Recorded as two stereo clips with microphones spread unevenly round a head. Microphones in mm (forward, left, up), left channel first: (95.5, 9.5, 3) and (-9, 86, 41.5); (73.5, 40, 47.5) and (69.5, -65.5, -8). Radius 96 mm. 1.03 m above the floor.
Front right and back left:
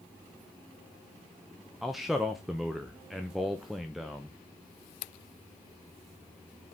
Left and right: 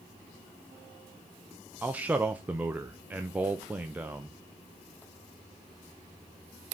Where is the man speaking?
105° right, 0.6 m.